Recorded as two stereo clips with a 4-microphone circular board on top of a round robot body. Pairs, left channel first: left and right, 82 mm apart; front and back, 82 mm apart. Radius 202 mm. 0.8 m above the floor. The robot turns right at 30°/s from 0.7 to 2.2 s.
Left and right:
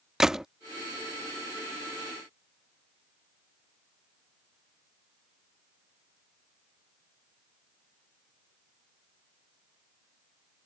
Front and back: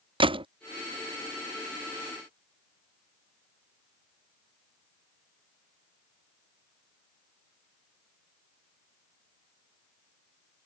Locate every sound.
0.2 s a gunshot: 175° right